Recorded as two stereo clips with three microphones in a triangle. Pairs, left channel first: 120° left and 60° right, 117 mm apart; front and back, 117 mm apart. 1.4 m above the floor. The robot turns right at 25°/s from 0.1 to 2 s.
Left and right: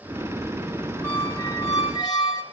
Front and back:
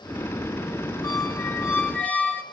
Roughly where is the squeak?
Ahead left.